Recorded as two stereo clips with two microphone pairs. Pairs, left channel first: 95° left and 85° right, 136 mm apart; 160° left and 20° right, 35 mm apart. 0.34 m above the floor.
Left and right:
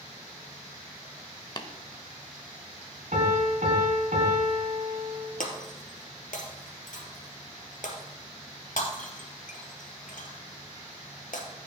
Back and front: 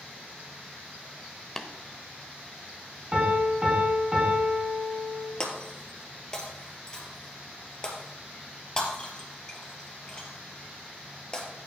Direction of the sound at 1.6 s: 100° left.